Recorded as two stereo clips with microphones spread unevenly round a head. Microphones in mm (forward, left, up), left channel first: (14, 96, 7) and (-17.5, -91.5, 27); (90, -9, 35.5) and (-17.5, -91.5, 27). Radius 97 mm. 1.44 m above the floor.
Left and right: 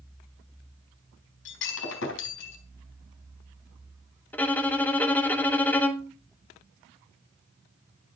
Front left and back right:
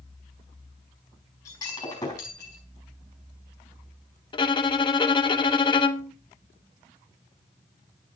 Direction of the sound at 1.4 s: 110° left.